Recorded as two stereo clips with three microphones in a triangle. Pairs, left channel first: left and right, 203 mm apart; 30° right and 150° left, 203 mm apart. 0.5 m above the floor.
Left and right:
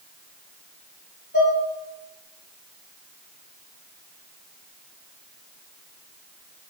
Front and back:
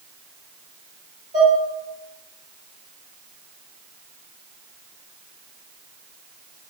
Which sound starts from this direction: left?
Dishes clattering, at 1.3 s.